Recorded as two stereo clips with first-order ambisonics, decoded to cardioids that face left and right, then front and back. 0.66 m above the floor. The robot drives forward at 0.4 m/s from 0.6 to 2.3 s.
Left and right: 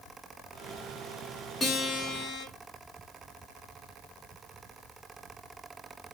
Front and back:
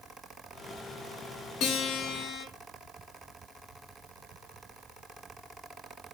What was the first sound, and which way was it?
A guitar, 20° left.